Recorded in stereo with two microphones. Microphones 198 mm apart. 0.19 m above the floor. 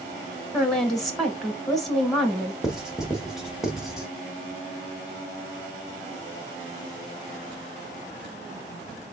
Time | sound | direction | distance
0.5 | a woman speaking | centre (ahead or behind) | 1.6 m
2.6 | writing | 5° right (ahead or behind) | 1.2 m